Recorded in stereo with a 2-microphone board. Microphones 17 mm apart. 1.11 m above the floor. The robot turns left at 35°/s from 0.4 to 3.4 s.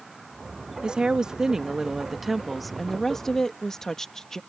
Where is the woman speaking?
120° right; by 4.4 s 150° left.